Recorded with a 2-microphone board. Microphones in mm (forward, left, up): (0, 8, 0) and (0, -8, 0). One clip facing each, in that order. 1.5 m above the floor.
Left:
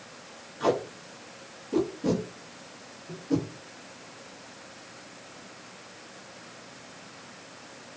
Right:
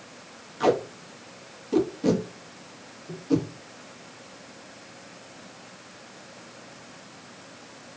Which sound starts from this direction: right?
Tape being pulled, at 0.6 s.